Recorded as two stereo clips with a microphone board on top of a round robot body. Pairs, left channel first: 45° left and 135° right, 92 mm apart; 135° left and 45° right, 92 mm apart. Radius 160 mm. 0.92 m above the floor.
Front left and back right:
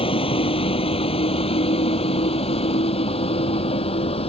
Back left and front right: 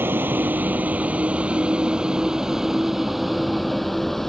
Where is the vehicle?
25° left; by 4.3 s 50° left.